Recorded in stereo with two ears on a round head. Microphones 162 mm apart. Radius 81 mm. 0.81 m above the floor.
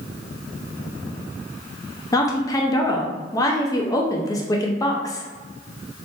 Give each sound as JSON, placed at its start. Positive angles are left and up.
{"t": 2.1, "sound": "a woman speaking", "side_deg": 20, "distance_m": 0.5}